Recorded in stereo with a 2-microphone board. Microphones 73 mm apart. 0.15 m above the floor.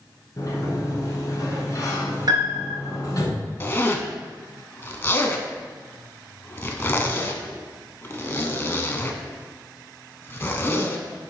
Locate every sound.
0.4 s a sliding door: 45° left (ahead or behind), 1.3 m
2.3 s a piano: 60° right (ahead or behind), 1.0 m
3.6 s a zipper: 30° left (ahead or behind), 0.5 m